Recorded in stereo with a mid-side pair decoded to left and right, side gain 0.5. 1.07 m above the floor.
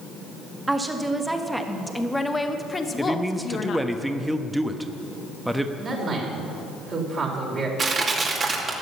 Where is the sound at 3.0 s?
5° right, 1.0 m.